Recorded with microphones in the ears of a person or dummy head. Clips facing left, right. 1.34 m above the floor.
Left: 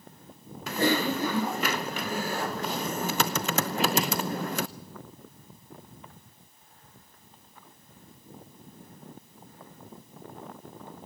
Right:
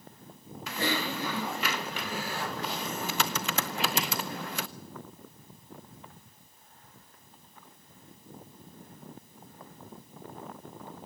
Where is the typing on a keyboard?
50° left (ahead or behind), 0.7 m.